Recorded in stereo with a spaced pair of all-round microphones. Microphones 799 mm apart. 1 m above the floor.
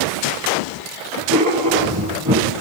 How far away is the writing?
About 9 m.